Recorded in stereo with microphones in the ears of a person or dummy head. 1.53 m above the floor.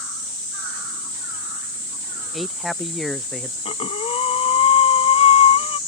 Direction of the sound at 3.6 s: 30° left (ahead or behind).